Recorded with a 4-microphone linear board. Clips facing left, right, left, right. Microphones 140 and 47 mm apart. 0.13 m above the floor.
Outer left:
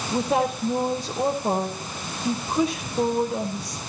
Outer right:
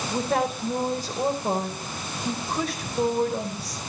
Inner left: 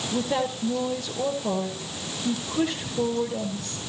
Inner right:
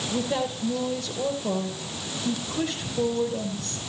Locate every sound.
0.1 s a woman speaking: 10° left (ahead or behind), 3.5 m